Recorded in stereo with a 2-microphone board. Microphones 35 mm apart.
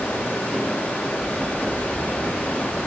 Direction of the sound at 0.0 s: 75° left (ahead or behind).